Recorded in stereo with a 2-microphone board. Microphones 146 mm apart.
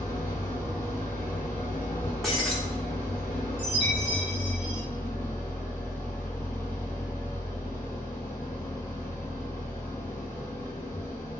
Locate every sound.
0.0 s an engine running: 20° left (ahead or behind), 0.7 m
2.2 s breaking glass: centre (ahead or behind), 0.7 m
3.6 s a chime: 15° right (ahead or behind), 1.9 m